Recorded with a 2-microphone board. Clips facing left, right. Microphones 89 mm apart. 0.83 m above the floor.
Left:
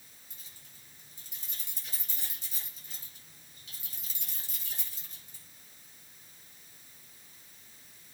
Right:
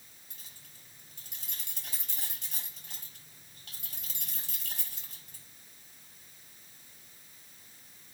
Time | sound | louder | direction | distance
0.3 | keys jangling | right 2 dB | 85° right | 4.5 m